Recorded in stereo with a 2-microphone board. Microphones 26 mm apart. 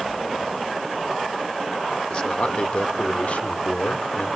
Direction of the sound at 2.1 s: 40° left (ahead or behind).